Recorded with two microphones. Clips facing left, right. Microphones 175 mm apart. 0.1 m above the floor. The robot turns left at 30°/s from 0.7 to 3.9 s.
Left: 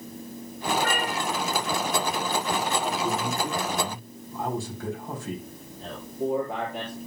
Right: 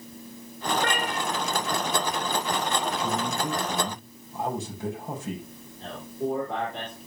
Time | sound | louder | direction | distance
0.7 | a cat meowing | even | 80° right | 6.5 m
3.0 | a man speaking | left 1 dB | 45° right (ahead or behind) | 5.5 m
5.8 | a man speaking | left 1 dB | 10° left (ahead or behind) | 4.5 m